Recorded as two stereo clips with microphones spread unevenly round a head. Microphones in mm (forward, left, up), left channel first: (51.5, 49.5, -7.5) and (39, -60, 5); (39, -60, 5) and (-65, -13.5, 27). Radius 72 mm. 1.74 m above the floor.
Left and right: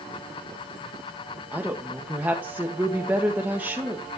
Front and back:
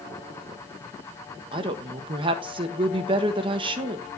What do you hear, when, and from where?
1.5 s a woman speaking: 170° right, 1.5 m